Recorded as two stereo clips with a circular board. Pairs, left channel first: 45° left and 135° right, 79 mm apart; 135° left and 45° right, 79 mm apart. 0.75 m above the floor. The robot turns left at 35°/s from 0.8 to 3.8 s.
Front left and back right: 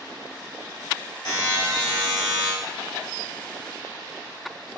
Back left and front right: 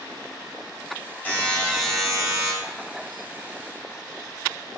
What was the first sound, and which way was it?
A buzzer, 70° left.